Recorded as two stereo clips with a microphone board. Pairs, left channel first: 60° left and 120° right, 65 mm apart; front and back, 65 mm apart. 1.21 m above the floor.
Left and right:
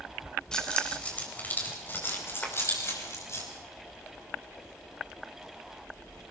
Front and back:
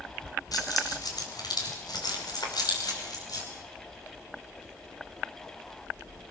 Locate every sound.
0.5 s keys jangling: 20° right, 3.5 m; by 3.4 s 20° left, 5 m
2.4 s a clap: 10° right, 4 m